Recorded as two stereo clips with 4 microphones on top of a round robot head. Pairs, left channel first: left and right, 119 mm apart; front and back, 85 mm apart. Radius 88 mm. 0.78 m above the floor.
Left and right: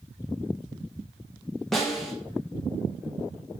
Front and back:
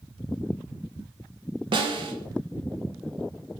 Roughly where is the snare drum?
Behind.